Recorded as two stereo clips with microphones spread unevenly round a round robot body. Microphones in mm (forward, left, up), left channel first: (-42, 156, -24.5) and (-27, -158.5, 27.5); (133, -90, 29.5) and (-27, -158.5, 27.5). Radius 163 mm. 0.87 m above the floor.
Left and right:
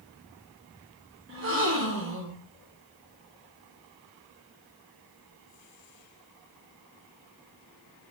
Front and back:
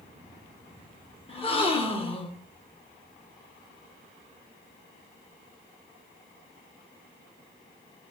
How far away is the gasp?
About 1.2 m.